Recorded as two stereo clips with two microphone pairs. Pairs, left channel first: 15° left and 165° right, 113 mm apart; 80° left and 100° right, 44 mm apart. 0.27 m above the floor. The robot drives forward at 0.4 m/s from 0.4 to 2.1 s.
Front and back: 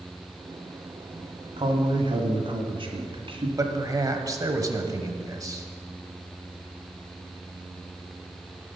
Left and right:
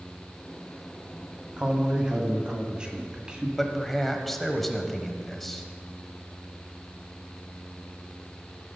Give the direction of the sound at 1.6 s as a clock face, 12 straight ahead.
5 o'clock.